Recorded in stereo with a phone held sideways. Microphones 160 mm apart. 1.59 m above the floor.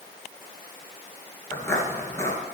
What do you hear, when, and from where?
1.5 s footsteps: 15° left (ahead or behind), 1.7 m